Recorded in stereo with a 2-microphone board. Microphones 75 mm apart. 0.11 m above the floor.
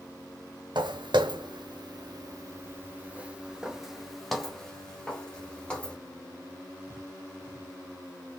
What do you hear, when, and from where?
0.8 s footsteps: 80° right, 1.1 m; by 6.0 s 15° left (ahead or behind), 2 m